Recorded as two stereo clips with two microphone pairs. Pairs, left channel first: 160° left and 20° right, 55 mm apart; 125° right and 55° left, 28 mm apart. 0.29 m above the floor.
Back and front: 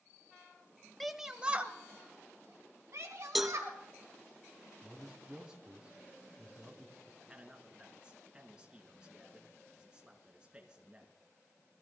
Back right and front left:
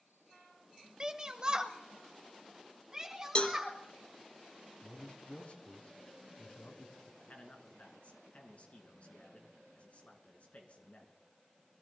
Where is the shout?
80° left, 1.0 m; by 3.8 s 15° right, 2.5 m.